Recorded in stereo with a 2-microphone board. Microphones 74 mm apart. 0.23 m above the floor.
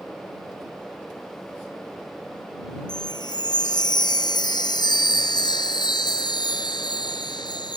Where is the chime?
70° left (ahead or behind).